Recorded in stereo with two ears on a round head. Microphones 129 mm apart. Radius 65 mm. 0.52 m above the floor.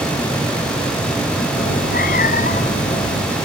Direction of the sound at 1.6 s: 70° left (ahead or behind).